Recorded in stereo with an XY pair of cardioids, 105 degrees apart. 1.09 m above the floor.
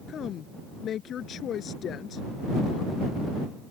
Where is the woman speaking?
60° left.